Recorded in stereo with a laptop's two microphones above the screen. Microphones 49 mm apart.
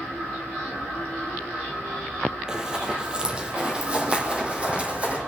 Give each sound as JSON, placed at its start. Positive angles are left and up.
{"t": 2.5, "sound": "running footsteps", "side_deg": -15, "distance_m": 1.7}